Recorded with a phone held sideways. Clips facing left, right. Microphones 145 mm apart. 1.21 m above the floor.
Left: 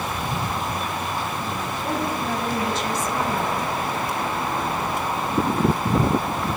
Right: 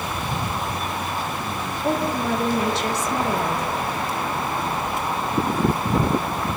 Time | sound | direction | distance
1.8 | a woman speaking | 70° right (ahead or behind) | 1.6 m